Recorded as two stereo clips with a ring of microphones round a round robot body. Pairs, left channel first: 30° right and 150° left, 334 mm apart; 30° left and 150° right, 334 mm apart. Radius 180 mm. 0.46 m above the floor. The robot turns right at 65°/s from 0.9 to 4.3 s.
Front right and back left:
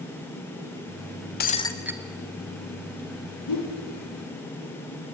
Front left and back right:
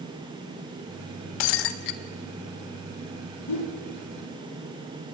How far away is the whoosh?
About 6 m.